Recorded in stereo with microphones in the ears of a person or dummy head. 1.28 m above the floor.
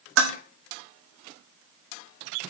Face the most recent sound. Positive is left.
turn(degrees=-65)  # may be behind; listen again after turning